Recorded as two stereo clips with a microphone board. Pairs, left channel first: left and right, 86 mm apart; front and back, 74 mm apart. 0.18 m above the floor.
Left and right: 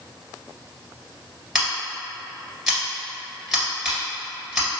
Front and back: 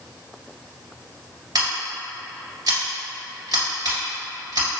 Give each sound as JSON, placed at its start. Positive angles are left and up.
{"t": 1.6, "sound": "scissors", "azimuth_deg": -175, "distance_m": 1.8}